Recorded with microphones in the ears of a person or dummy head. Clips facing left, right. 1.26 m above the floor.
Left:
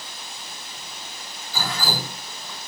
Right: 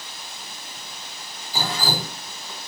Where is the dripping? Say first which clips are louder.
Right 2 dB; 15° right (ahead or behind), 4 m.